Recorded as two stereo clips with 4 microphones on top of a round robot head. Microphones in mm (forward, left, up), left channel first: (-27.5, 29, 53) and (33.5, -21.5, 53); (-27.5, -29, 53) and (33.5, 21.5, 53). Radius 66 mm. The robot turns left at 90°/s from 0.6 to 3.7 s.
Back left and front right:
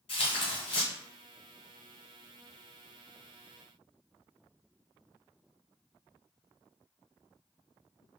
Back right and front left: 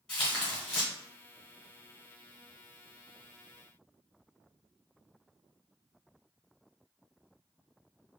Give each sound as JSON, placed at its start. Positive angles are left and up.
{"t": 0.1, "sound": "tearing paper", "azimuth_deg": 140, "distance_m": 0.8}